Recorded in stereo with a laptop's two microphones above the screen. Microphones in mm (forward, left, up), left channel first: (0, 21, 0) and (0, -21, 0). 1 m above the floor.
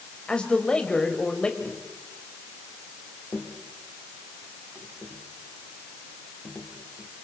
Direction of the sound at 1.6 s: 50° left (ahead or behind).